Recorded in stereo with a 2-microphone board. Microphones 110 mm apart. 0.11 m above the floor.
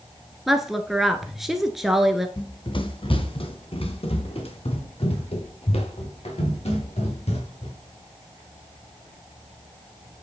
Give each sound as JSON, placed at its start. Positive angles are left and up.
{"t": 0.5, "sound": "a woman speaking", "side_deg": 0, "distance_m": 1.3}
{"t": 2.4, "sound": "running footsteps", "side_deg": 45, "distance_m": 1.6}